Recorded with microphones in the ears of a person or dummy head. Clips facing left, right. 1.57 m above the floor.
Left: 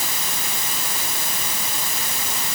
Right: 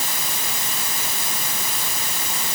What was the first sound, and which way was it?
Only background noise.